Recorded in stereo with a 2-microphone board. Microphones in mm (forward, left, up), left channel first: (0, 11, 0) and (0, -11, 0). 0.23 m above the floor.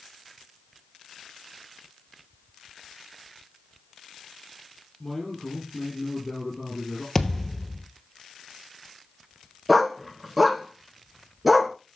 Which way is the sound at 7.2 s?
20° left (ahead or behind).